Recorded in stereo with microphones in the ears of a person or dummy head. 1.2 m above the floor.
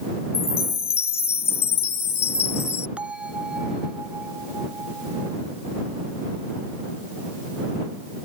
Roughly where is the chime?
Centre.